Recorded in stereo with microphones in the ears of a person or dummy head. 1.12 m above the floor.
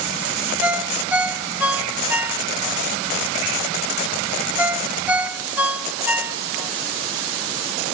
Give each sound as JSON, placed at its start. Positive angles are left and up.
{"t": 0.6, "sound": "a ringtone", "side_deg": -10, "distance_m": 1.3}